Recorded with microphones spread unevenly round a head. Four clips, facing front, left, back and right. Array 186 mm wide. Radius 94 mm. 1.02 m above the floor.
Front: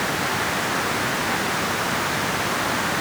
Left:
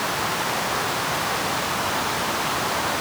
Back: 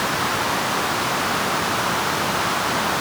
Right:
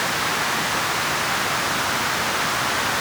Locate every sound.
Only background noise.